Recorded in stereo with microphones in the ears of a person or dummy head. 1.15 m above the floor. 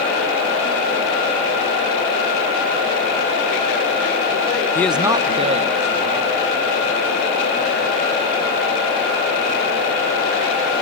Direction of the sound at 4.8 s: 15° left (ahead or behind).